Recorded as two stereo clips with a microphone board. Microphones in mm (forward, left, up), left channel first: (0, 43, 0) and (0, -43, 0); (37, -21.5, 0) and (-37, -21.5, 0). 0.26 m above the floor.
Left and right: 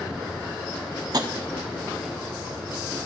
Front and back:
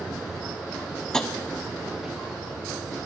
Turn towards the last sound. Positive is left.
turn(degrees=-80)